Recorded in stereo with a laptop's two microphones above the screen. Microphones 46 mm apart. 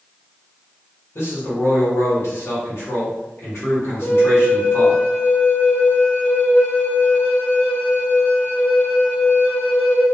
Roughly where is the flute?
Left.